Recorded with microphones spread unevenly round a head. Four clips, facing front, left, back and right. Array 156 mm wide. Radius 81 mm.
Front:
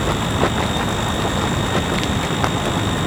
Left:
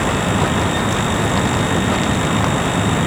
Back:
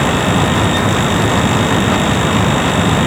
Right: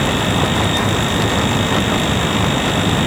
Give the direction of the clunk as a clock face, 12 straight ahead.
I don't hear a clunk.